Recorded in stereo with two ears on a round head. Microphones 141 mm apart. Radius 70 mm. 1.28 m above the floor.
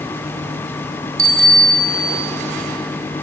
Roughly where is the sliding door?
I don't hear a sliding door.